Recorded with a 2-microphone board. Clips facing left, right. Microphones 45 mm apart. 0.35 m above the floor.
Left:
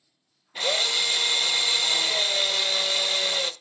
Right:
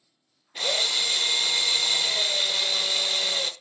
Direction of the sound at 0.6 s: 10° left (ahead or behind).